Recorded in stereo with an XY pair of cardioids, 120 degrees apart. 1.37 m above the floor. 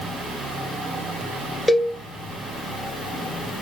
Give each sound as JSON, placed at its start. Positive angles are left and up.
{"t": 1.7, "sound": "a cowbell", "azimuth_deg": 15, "distance_m": 0.8}